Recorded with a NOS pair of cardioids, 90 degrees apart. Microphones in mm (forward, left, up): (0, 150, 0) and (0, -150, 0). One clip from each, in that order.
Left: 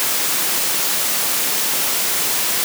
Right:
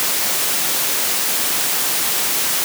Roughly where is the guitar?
I don't hear a guitar.